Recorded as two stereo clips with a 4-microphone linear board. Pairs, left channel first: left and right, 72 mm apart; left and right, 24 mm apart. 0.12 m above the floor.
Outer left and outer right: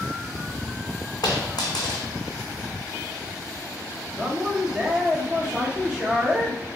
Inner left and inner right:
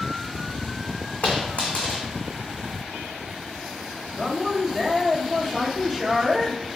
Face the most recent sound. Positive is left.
turn(degrees=-10)  # may be behind; listen again after turning